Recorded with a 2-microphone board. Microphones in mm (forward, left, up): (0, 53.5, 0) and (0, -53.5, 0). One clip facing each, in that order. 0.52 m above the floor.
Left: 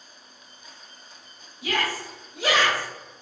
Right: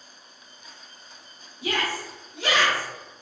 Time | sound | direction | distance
1.6 | a shout | 30° right (ahead or behind) | 1.2 m